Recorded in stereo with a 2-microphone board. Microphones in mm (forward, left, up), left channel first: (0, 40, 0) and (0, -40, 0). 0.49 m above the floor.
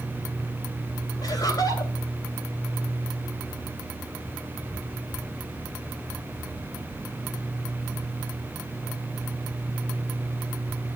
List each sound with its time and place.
1.2 s laughter: 55° left (ahead or behind), 2.5 m